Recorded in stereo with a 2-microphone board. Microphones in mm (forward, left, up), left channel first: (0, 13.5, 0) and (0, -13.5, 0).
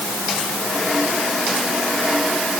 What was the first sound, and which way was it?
Only background noise.